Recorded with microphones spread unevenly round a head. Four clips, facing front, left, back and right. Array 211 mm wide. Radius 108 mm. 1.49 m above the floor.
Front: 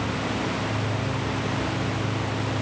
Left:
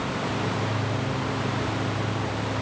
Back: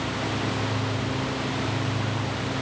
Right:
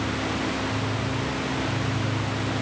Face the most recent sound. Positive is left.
No sound to turn to.